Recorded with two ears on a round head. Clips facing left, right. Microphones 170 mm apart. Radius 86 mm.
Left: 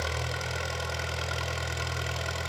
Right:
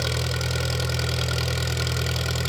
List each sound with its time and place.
0.0 s an engine running: 45° right (ahead or behind), 0.8 m